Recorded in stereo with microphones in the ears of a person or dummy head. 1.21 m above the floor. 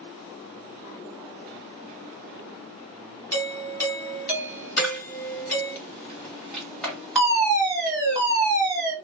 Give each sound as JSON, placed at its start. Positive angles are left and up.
{"t": 3.3, "sound": "a doorbell", "side_deg": 20, "distance_m": 0.9}
{"t": 4.8, "sound": "a camera shutter", "side_deg": 0, "distance_m": 1.5}
{"t": 7.2, "sound": "a fire alarm", "side_deg": 0, "distance_m": 2.0}